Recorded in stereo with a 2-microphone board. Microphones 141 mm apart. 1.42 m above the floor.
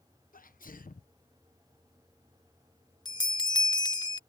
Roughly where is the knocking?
No knocking in this recording.